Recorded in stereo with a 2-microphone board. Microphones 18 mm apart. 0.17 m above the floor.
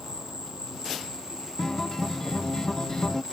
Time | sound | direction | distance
0.0 | an insect | 45° right (ahead or behind) | ?
1.6 | a guitar | 30° left (ahead or behind) | ?